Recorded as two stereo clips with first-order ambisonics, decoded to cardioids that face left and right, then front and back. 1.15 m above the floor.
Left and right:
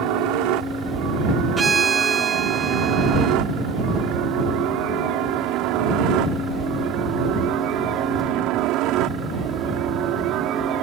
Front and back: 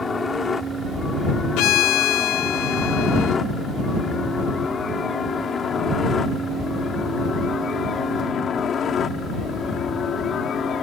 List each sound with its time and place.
0.0 s a helicopter: 75° right; by 10.8 s 55° right
1.6 s a violin: 20° right